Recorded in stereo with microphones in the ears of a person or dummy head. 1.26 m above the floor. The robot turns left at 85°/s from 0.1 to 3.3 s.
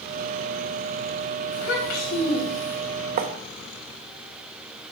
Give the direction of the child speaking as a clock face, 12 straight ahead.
8 o'clock.